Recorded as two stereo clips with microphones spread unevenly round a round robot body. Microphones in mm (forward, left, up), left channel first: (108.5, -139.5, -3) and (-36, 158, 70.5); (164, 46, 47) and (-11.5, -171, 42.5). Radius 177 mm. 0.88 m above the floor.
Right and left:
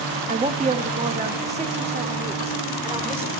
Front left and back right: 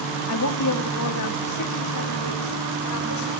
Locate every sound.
0.3 s a woman speaking: 40° left, 1.6 m